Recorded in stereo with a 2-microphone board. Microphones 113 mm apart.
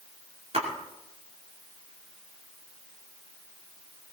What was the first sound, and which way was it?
A splash, 65° right (ahead or behind).